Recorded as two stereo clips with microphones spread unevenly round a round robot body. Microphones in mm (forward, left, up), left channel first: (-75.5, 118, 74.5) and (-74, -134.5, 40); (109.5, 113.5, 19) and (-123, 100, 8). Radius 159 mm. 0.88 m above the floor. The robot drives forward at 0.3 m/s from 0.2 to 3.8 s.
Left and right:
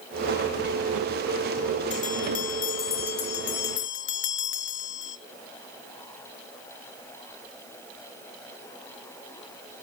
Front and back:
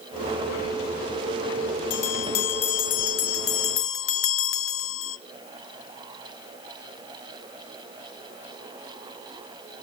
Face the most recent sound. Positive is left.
turn(degrees=35)